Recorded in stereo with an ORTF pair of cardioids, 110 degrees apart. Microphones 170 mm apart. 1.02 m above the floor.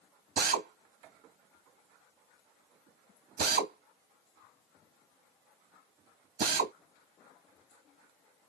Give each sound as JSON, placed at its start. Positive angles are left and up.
{"t": 0.4, "sound": "a drill", "azimuth_deg": -60, "distance_m": 1.1}